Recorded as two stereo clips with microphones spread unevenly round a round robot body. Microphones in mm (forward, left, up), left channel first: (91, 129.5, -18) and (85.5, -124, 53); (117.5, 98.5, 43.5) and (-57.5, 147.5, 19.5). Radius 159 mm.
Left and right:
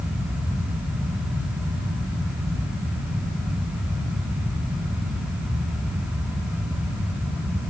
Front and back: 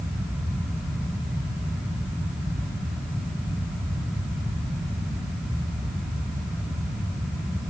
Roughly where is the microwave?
No microwave in this recording.